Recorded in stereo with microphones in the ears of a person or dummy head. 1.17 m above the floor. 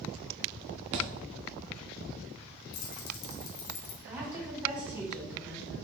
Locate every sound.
0.9 s a thud: 25° right (ahead or behind), 0.6 m
2.7 s keys jangling: 65° left (ahead or behind), 1.9 m
4.0 s a woman speaking: 5° right (ahead or behind), 2.5 m